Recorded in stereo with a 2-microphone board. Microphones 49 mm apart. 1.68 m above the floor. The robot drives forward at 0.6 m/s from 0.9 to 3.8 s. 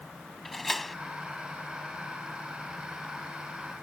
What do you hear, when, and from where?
0.5 s a door slam: 5° left (ahead or behind)